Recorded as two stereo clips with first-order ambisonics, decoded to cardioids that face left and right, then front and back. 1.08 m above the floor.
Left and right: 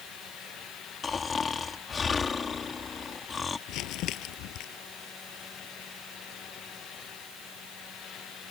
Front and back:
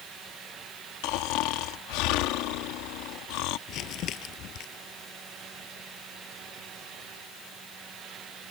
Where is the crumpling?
45° left.